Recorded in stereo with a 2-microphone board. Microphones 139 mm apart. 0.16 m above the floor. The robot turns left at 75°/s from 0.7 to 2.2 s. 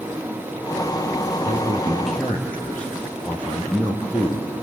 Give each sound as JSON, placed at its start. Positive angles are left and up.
{"t": 1.4, "sound": "a man speaking", "azimuth_deg": -130, "distance_m": 3.5}